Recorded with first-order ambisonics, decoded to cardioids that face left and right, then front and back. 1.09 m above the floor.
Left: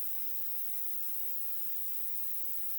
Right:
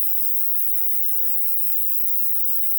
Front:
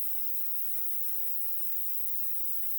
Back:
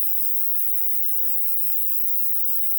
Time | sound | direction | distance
0.0 | an insect | 125° right | 1.5 m